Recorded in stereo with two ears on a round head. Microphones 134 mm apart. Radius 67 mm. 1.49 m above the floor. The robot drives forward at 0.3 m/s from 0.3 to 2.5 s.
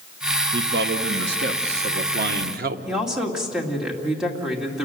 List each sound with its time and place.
0.5 s a man speaking: 80° right, 1.1 m; by 2.8 s 70° right (ahead or behind), 1.2 m
2.9 s a woman speaking: 5° right (ahead or behind), 2.5 m